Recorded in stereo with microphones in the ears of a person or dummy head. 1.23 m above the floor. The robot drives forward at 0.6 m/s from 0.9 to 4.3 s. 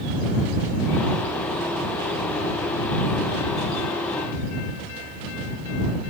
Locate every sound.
Only background noise.